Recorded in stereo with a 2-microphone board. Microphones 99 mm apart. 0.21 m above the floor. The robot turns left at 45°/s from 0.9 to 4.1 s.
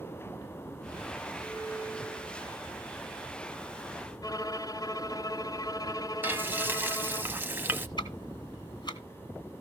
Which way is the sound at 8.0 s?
45° left (ahead or behind).